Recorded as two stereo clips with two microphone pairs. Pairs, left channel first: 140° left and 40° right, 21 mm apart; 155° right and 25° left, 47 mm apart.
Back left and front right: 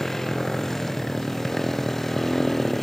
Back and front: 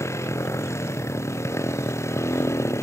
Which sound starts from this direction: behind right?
A motorcycle, at 0.0 s.